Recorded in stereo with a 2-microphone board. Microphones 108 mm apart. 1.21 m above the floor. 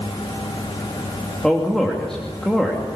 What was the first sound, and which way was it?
A man speaking, 5° left (ahead or behind).